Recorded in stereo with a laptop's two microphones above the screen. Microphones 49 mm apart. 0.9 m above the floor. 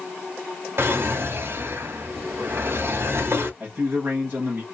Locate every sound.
0.8 s a drawer: 55° right (ahead or behind), 0.8 m
3.6 s a man speaking: 35° right (ahead or behind), 1.0 m